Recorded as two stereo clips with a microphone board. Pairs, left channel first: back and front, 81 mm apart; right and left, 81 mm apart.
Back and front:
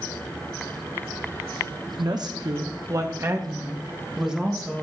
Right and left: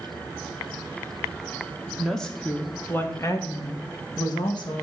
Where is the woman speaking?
5° right, 1.1 m; by 4.8 s 90° right, 1.3 m.